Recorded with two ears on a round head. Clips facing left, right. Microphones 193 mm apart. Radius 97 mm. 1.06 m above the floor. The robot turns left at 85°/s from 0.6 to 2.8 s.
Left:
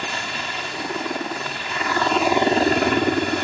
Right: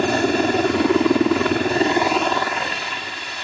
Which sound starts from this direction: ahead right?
A helicopter, at 0.0 s.